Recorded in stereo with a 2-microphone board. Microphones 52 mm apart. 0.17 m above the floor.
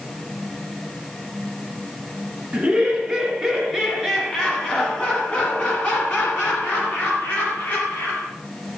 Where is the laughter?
15° right (ahead or behind), 1.9 m; by 8.3 s 55° left (ahead or behind), 2.5 m.